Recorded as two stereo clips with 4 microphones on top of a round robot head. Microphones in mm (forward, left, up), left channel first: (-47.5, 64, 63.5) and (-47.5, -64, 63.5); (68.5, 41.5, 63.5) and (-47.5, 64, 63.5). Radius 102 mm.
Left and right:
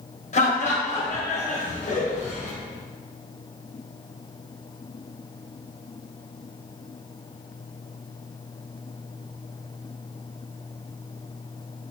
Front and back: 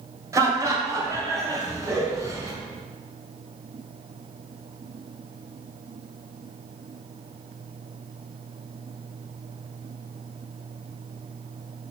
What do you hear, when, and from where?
0.3 s laughter: 105° left, 3 m